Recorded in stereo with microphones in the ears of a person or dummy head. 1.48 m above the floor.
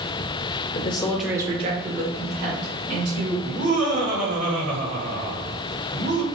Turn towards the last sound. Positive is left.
turn(degrees=-85)